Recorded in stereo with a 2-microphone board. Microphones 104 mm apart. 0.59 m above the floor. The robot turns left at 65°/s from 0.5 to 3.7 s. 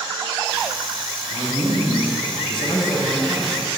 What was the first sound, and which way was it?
A man speaking, 135° left.